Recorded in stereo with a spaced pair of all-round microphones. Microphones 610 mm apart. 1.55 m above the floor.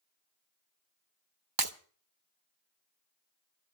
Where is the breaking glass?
35° right (ahead or behind), 1.1 m.